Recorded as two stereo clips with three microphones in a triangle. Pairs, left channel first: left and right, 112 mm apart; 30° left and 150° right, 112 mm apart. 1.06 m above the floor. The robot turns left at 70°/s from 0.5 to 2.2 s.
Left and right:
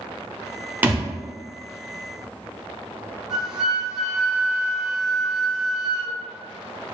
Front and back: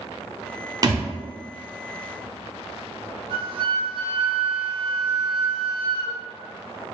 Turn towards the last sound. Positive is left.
turn(degrees=-175)